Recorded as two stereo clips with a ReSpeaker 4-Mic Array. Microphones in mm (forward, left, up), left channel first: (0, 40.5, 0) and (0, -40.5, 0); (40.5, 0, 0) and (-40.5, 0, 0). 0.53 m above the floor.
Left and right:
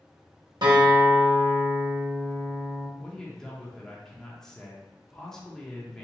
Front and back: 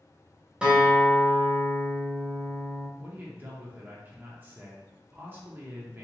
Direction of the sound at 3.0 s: 165° left.